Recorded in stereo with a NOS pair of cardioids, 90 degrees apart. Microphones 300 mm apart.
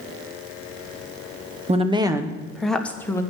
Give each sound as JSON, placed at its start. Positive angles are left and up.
{"t": 1.7, "sound": "a woman speaking", "azimuth_deg": -20, "distance_m": 1.1}